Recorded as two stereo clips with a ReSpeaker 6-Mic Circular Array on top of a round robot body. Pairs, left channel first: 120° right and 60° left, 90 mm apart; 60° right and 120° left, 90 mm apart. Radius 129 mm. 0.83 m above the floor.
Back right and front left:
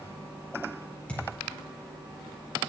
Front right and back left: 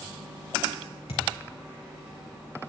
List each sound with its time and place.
1.1 s a thud: 45° right, 5 m